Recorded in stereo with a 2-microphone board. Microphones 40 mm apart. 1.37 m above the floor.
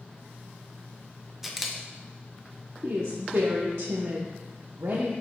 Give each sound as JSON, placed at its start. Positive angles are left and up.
{"t": 1.4, "sound": "a camera shutter", "side_deg": -5, "distance_m": 0.8}
{"t": 2.8, "sound": "a woman speaking", "side_deg": -85, "distance_m": 0.9}